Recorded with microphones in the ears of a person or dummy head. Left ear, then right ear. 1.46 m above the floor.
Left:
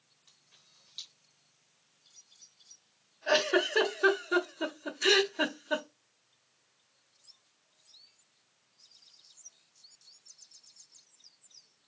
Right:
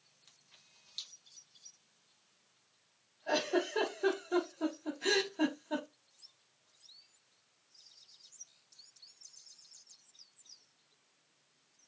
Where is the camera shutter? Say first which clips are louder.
Left 1 dB; 15° right (ahead or behind), 1.0 m.